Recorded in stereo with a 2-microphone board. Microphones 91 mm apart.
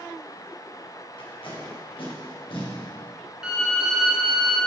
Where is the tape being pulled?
75° left (ahead or behind), 1.6 m.